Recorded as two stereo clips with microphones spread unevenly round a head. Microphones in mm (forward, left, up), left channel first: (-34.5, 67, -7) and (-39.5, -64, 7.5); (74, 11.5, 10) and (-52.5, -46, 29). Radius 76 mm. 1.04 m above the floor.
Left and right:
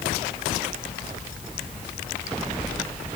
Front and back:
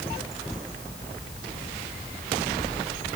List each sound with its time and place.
Only background noise.